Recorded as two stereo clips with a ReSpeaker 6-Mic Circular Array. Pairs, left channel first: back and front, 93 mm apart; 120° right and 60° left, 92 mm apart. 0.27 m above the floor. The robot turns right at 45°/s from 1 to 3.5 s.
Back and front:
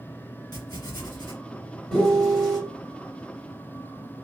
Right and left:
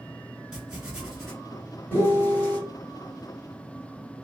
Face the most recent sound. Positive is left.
turn(degrees=-55)